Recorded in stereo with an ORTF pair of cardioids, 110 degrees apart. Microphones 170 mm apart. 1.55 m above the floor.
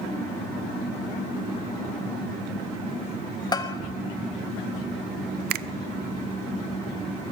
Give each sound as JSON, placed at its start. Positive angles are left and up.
{"t": 3.5, "sound": "a bell", "azimuth_deg": 25, "distance_m": 1.4}
{"t": 5.5, "sound": "a finger snap", "azimuth_deg": -65, "distance_m": 0.5}